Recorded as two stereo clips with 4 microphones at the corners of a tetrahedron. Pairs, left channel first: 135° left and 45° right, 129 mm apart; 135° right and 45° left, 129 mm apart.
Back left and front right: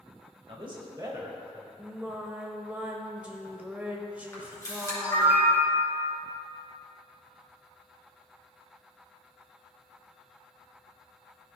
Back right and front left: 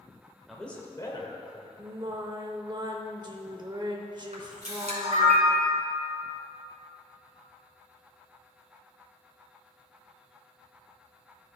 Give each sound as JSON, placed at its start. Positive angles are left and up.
{"t": 0.5, "sound": "a man speaking", "azimuth_deg": -45, "distance_m": 1.0}
{"t": 1.8, "sound": "singing", "azimuth_deg": 25, "distance_m": 0.6}
{"t": 4.3, "sound": "a camera shutter", "azimuth_deg": 70, "distance_m": 2.0}